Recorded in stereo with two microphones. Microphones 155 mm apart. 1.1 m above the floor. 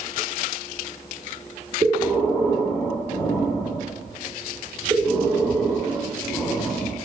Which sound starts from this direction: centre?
Breathing, at 1.8 s.